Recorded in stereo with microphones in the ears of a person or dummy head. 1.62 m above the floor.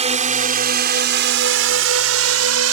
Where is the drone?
30° right (ahead or behind); by 2.7 s 80° right.